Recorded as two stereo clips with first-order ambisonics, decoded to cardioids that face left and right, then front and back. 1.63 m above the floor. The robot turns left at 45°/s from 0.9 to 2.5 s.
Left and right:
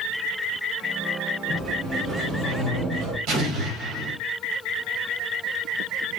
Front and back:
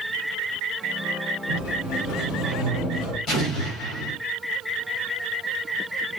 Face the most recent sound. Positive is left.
turn(degrees=-60)